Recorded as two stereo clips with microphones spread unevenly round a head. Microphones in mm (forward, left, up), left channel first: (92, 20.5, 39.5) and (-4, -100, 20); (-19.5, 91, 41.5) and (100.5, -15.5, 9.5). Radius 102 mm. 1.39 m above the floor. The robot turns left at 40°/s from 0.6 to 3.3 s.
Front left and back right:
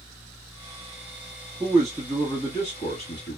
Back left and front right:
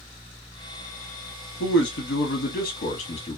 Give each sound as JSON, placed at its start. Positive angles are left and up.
{"t": 1.6, "sound": "a man speaking", "azimuth_deg": 150, "distance_m": 1.0}